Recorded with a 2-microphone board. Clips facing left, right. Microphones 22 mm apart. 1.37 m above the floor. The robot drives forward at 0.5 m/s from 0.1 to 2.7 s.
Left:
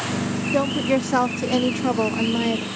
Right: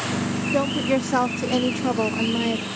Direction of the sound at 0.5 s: 5° left (ahead or behind).